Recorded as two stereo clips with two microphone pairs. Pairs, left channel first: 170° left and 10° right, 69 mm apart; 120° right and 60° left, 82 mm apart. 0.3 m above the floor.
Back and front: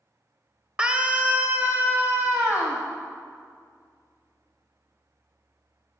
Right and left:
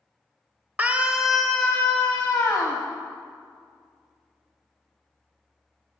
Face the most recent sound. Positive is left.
turn(degrees=-65)